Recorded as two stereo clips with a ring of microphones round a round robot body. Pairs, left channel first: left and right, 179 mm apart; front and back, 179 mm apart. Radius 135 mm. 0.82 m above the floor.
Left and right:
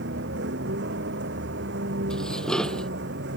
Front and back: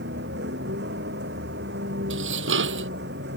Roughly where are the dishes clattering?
Behind.